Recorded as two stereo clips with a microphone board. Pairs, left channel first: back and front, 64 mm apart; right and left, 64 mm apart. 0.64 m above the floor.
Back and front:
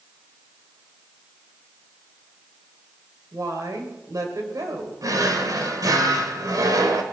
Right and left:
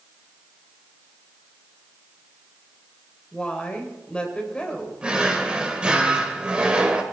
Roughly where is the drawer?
Ahead.